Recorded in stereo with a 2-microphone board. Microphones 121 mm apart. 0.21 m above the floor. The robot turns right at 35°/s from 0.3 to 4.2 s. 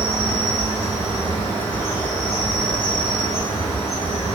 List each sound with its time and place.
0.0 s an insect: 80° right, 1.2 m; by 4.4 s 55° left, 1.2 m